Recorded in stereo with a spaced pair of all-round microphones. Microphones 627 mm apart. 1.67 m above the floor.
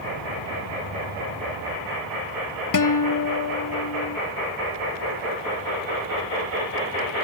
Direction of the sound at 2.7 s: 35° left (ahead or behind).